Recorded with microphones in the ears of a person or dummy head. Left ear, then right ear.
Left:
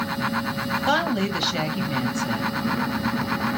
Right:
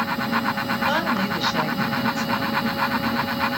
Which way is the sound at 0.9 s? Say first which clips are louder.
Left 2 dB; 5° left (ahead or behind).